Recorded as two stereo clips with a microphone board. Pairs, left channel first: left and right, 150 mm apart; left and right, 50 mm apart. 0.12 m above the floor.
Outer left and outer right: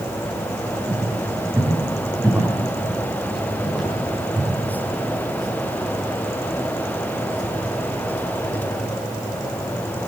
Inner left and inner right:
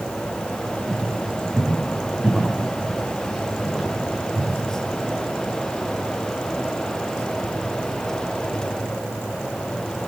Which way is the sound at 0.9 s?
20° right (ahead or behind).